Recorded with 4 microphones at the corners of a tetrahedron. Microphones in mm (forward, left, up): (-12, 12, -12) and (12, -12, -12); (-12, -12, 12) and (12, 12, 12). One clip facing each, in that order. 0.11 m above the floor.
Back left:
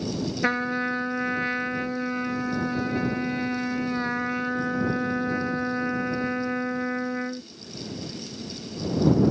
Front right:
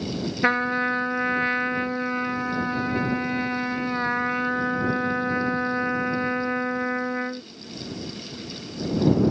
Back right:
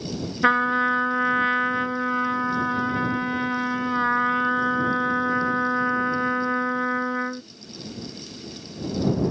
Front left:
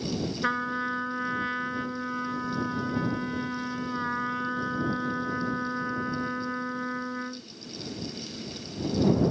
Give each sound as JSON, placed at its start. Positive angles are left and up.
{"t": 0.4, "sound": "a trumpet", "azimuth_deg": -115}